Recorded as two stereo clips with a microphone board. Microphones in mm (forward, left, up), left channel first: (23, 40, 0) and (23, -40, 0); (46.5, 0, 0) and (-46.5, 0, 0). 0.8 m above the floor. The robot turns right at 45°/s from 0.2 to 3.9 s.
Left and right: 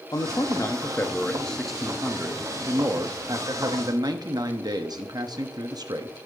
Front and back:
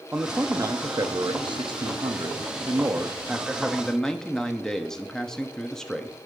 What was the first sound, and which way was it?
A man speaking, 110° left.